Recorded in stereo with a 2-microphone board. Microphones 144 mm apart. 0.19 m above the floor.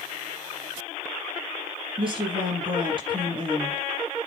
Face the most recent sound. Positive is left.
turn(degrees=-35)  # may be behind; listen again after turning